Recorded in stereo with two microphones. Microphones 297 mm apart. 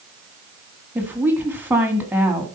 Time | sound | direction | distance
0.9 | a woman speaking | 5° right (ahead or behind) | 1.7 m